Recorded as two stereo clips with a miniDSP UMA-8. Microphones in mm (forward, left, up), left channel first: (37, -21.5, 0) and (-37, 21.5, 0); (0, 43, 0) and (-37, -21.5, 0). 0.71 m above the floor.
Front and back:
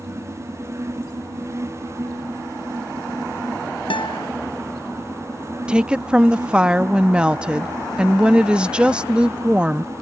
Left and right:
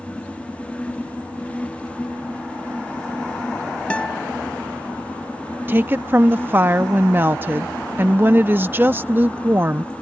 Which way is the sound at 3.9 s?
15° right.